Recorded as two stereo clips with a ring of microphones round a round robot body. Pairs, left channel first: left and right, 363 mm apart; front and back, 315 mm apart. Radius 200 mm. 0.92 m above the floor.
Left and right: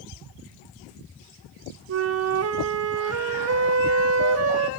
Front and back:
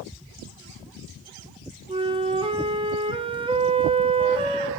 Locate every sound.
1.9 s a flute: 115° right, 0.5 m